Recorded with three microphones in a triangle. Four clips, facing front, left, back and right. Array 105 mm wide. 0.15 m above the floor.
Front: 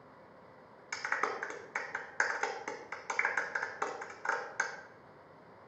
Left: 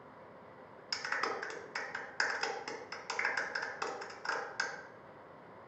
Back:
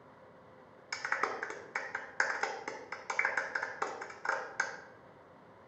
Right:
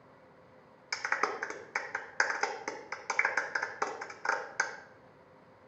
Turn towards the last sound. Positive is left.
turn(degrees=-95)